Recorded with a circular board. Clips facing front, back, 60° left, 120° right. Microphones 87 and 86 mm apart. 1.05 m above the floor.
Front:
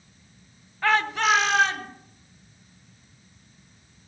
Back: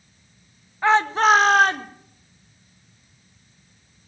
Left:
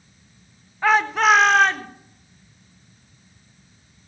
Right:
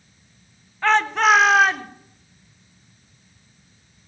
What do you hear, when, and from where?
0.8 s a shout: 130° left, 0.8 m; by 1.9 s 160° left, 1.4 m